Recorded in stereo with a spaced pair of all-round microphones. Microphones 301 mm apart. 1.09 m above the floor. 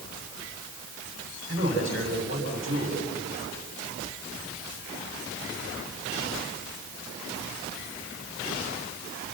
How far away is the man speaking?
About 6 m.